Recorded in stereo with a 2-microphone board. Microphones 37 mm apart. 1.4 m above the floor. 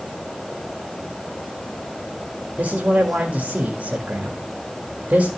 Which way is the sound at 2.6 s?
45° right (ahead or behind).